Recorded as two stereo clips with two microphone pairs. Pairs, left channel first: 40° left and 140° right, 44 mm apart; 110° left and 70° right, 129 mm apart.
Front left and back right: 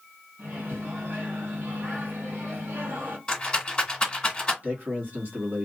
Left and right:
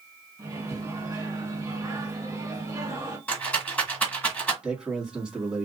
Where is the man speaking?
150° right, 1.4 m.